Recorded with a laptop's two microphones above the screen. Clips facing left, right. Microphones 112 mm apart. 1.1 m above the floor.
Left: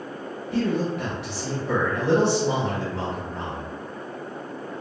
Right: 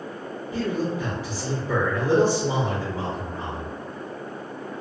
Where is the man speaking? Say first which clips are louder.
Left 2 dB; 75° left (ahead or behind), 1.3 m.